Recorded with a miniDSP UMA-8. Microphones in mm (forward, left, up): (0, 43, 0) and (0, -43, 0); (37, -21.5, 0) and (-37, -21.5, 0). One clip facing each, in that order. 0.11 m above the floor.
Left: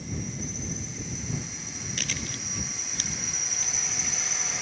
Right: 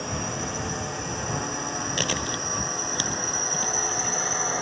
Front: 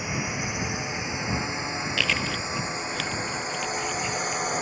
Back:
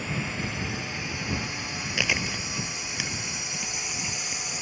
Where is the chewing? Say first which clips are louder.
Right 9 dB, even; 105° right.